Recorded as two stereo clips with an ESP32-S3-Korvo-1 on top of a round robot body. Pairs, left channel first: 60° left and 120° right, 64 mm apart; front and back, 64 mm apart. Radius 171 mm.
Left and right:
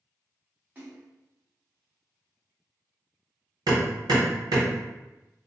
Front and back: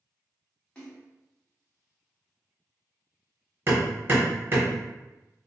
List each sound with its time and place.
0.8 s a splash: 70° right, 1.4 m
3.7 s hammering: 125° right, 0.8 m